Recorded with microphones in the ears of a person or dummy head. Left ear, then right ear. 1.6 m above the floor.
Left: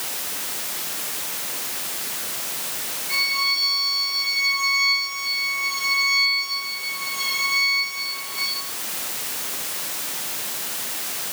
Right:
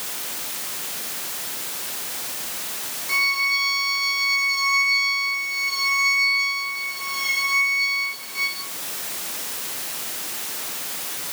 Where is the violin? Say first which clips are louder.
Right 1 dB; 55° right (ahead or behind), 4 m.